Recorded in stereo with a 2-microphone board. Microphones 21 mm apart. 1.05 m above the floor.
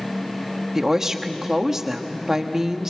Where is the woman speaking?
20° right (ahead or behind), 1.4 m.